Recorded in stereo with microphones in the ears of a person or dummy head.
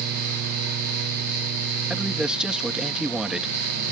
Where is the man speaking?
5° right (ahead or behind).